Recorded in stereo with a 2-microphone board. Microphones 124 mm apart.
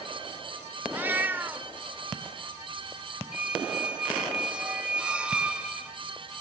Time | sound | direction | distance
0.9 | a cat meowing | 15° right (ahead or behind) | 1.1 m
3.3 | a squeak | 10° right (ahead or behind) | 2.5 m